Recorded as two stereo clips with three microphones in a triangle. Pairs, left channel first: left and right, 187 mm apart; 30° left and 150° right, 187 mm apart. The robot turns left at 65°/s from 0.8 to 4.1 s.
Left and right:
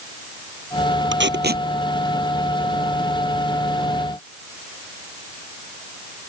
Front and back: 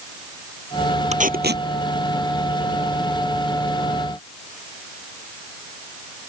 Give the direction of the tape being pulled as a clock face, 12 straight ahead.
3 o'clock.